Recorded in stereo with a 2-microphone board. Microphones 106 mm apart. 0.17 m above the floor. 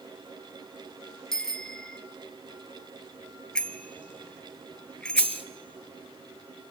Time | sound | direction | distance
1.3 | a bicycle bell | 5° left (ahead or behind) | 2 m
3.5 | a bicycle bell | 10° left (ahead or behind) | 2 m
5.2 | a dropped coin | 65° left (ahead or behind) | 1.2 m